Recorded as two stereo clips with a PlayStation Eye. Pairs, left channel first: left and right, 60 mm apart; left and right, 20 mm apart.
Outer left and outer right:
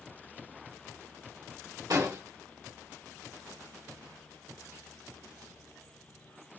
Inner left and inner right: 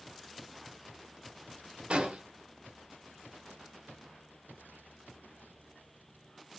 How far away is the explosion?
About 1.0 m.